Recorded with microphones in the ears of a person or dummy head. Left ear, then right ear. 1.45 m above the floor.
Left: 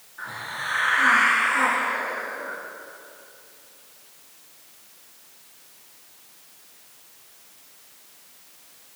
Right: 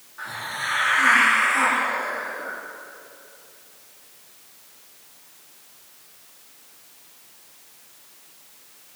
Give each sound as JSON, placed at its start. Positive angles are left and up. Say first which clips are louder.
{"t": 0.2, "sound": "a hiss", "louder": "right 2 dB", "side_deg": -15, "distance_m": 3.5}